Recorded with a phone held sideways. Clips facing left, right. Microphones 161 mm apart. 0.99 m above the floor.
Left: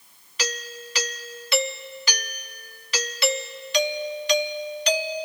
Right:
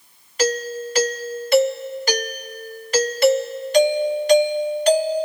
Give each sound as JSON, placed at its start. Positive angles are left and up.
{"t": 0.4, "sound": "a doorbell", "side_deg": -45}